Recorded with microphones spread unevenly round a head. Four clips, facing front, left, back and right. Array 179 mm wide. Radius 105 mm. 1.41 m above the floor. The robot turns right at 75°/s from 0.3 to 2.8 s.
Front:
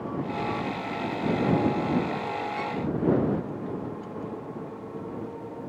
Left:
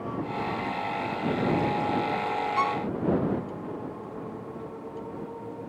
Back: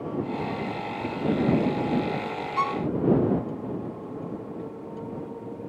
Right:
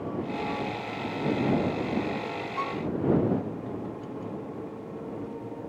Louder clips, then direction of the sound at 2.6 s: Left 4 dB, back 5 dB; 125° left.